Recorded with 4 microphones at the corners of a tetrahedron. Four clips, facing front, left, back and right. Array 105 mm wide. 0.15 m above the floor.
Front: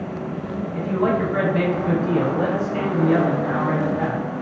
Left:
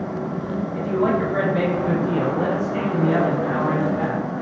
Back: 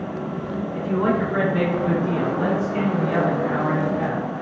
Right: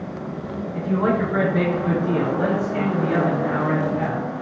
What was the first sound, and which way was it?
A man speaking, 125° right.